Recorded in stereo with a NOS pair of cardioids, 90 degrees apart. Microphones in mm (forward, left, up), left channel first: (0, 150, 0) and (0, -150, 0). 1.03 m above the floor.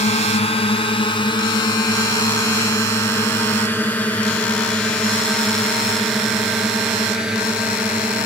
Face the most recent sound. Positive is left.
turn(degrees=-5)